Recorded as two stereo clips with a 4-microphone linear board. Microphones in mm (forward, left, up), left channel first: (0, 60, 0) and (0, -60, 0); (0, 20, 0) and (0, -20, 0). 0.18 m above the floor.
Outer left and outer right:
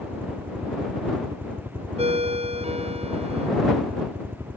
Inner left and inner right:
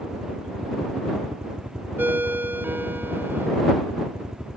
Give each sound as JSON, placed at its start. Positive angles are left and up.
{"t": 0.0, "sound": "a helicopter", "side_deg": -15}
{"t": 2.0, "sound": "a ringtone", "side_deg": -60}